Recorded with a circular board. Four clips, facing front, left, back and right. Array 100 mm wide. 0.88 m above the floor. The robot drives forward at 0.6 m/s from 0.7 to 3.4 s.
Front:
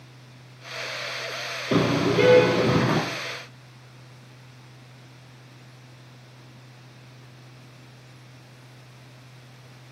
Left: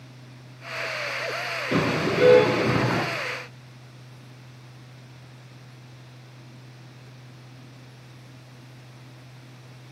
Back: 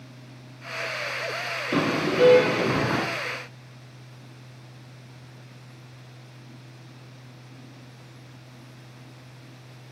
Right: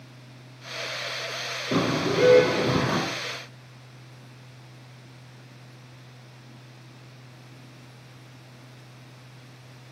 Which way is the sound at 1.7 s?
10° right.